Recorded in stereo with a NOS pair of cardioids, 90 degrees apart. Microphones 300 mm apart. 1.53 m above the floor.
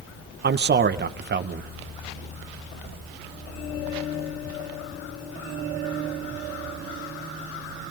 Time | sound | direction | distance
0.4 | a man speaking | 35° right | 1.9 m